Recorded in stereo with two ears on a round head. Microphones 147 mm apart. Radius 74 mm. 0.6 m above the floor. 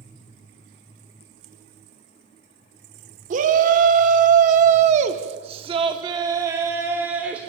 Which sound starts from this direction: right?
A shout, at 3.3 s.